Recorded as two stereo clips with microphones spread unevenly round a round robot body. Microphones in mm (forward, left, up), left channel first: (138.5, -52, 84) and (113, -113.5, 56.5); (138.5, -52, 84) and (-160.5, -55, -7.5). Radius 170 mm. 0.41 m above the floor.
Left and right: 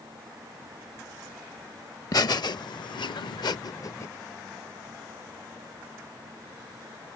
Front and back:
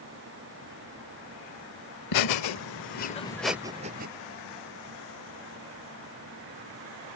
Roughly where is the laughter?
Ahead left.